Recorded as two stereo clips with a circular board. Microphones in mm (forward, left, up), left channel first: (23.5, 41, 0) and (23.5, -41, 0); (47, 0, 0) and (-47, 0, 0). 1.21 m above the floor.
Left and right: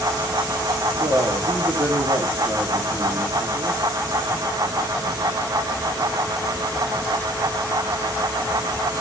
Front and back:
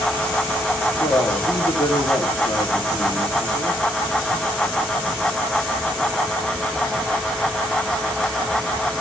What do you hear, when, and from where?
1.0 s a man speaking: 40° right, 1.7 m